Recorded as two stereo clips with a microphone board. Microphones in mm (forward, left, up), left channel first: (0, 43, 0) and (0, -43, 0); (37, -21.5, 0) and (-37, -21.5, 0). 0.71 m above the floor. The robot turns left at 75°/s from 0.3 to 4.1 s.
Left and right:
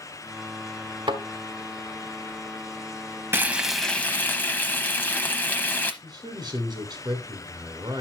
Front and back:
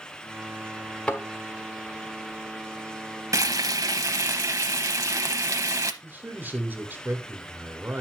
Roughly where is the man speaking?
Behind right.